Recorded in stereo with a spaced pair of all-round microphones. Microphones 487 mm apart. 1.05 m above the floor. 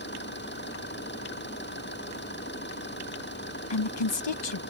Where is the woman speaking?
60° left (ahead or behind).